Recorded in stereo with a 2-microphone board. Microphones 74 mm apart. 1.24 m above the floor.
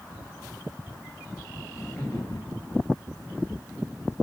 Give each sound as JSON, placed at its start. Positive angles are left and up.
{"t": 1.7, "sound": "laughter", "side_deg": 40, "distance_m": 1.7}